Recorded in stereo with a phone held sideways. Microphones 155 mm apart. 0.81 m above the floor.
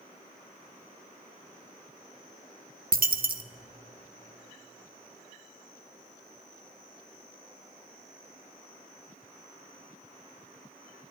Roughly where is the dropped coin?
Right.